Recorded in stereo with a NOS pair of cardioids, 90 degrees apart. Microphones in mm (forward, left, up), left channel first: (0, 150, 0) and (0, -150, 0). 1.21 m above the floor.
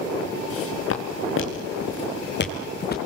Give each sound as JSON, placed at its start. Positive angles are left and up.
{"t": 0.5, "sound": "footsteps", "azimuth_deg": 50, "distance_m": 5.0}